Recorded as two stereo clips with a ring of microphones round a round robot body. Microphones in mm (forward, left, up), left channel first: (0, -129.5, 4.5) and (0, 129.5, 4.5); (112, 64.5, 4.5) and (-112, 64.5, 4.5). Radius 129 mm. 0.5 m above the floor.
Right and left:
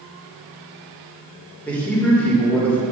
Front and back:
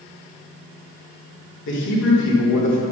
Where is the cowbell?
No cowbell in this recording.